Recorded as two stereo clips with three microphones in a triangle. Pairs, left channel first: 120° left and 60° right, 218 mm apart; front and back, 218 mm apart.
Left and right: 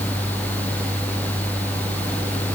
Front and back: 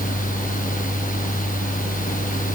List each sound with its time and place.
Only background noise.